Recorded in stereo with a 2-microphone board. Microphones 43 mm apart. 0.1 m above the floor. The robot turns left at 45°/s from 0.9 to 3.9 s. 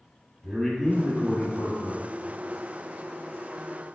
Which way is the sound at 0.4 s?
175° left.